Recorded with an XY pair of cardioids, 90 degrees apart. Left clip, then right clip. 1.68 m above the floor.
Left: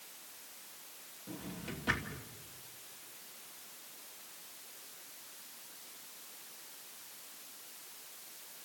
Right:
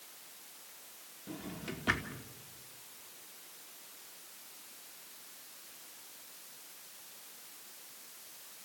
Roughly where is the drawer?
Ahead right.